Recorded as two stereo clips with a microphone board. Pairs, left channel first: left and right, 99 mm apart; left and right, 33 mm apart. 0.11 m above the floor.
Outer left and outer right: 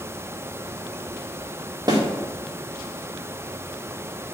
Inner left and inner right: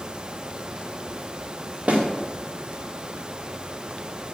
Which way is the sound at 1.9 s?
40° right (ahead or behind).